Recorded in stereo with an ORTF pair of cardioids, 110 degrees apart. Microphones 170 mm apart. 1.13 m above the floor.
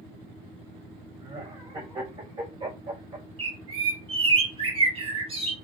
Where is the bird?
30° right, 1.1 m.